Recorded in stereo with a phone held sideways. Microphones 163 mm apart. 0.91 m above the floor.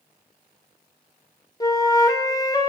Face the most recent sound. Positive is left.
turn(degrees=25)  # may be behind; listen again after turning